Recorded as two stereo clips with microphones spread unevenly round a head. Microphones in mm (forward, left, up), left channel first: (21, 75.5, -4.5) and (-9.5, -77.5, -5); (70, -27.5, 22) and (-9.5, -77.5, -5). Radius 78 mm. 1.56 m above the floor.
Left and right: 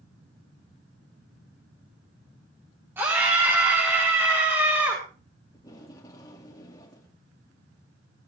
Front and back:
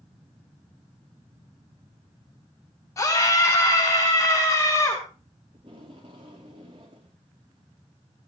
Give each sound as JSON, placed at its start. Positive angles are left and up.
{"t": 3.0, "sound": "a scream", "azimuth_deg": -25, "distance_m": 3.5}
{"t": 5.5, "sound": "tape being pulled", "azimuth_deg": 145, "distance_m": 2.0}